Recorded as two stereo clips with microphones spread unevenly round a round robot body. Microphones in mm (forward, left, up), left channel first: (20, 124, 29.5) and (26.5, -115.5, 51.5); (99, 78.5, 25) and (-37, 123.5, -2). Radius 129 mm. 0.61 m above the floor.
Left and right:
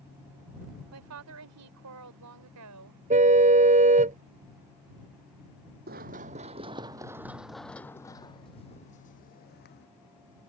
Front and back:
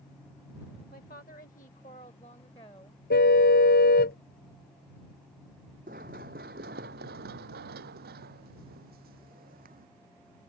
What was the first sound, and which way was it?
A woman speaking, 70° right.